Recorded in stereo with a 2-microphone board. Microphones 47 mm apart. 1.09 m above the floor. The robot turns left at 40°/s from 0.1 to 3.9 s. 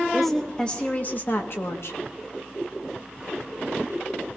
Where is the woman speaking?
Straight behind, 1.9 m; by 2.0 s 105° left, 1.9 m.